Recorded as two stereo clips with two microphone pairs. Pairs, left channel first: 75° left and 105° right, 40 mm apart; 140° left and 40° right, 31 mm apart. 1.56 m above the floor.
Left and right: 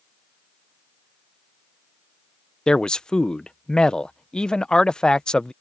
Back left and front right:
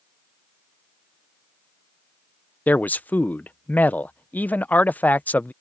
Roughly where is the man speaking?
Behind left.